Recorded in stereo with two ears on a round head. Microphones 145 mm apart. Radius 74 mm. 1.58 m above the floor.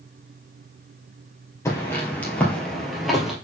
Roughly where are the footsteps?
Centre.